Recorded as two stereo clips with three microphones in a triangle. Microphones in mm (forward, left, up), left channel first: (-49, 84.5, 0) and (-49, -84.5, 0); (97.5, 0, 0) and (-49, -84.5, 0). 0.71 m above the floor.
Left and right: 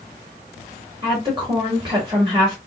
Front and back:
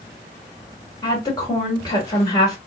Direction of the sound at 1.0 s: 35° right.